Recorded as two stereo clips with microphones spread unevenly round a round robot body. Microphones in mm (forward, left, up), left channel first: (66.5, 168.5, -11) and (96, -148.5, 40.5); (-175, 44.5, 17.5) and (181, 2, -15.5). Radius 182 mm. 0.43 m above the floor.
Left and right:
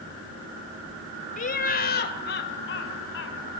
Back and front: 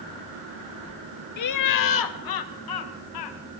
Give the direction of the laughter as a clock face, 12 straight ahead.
7 o'clock.